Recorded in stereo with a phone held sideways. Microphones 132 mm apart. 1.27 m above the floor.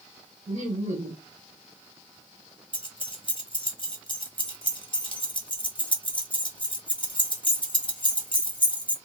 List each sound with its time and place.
0.5 s laughter: 60° right (ahead or behind), 1.1 m
2.7 s keys jangling: 40° left (ahead or behind), 0.7 m